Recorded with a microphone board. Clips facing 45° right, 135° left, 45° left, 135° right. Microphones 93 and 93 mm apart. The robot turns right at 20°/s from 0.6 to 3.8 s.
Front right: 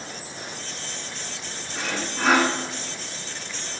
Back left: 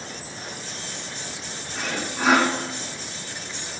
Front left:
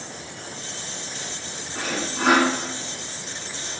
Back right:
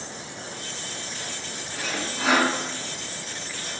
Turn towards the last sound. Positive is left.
turn(degrees=80)